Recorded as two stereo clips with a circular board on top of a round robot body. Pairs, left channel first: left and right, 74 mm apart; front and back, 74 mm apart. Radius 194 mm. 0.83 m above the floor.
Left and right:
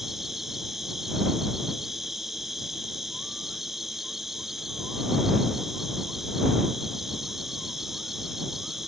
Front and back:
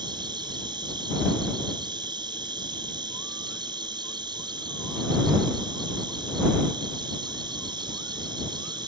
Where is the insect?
175° right.